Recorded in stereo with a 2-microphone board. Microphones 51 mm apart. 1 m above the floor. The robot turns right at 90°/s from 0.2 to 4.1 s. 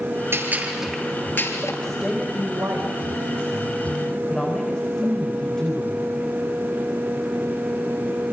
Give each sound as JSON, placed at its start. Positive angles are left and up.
{"t": 0.3, "sound": "a gunshot", "azimuth_deg": -55, "distance_m": 7.0}
{"t": 1.8, "sound": "a woman speaking", "azimuth_deg": 170, "distance_m": 4.0}